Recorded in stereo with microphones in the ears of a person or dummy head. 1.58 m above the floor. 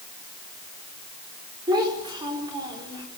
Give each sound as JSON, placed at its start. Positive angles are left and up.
{"t": 1.7, "sound": "a child speaking", "side_deg": -20, "distance_m": 4.5}